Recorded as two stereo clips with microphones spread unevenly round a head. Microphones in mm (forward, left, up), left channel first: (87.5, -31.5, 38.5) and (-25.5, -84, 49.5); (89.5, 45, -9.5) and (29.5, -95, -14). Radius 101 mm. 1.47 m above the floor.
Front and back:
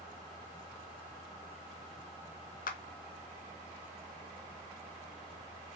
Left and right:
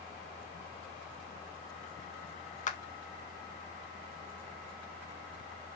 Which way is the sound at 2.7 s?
30° left.